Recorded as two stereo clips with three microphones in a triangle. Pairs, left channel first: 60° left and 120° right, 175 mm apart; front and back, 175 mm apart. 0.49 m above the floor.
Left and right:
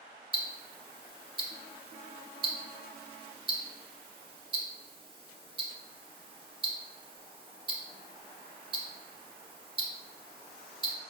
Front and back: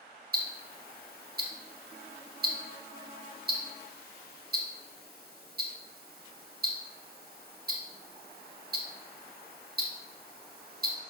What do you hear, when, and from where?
0.3 s ticking: straight behind, 0.5 m